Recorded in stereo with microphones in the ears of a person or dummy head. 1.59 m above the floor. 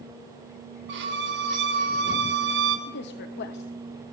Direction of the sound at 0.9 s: 60° right (ahead or behind).